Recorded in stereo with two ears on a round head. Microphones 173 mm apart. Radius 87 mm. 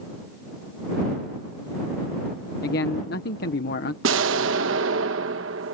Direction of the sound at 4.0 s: 75° right (ahead or behind).